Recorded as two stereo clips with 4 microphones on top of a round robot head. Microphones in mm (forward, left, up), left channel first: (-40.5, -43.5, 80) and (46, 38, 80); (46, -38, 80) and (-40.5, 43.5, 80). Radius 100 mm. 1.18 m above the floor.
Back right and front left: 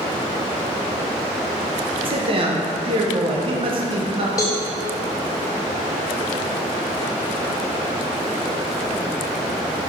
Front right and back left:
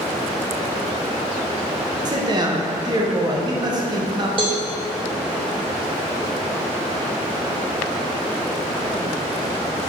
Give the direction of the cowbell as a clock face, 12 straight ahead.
6 o'clock.